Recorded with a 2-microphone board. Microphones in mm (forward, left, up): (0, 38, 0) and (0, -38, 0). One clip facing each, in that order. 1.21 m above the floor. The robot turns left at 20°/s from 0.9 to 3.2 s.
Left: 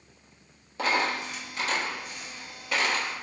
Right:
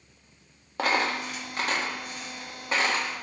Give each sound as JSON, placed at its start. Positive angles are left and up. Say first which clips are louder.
{"t": 0.8, "sound": "a dropped coin", "louder": "right 1 dB", "side_deg": -55, "distance_m": 0.9}